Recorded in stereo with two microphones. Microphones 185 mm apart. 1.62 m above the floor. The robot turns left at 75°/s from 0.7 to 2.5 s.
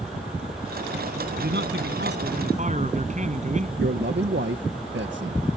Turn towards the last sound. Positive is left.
turn(degrees=-80)